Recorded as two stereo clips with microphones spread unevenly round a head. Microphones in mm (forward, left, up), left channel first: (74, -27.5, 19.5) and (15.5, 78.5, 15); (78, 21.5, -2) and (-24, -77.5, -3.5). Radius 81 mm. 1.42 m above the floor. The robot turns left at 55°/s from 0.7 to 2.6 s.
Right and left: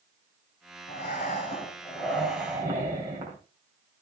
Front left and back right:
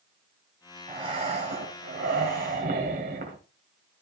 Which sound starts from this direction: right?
Breathing, at 0.9 s.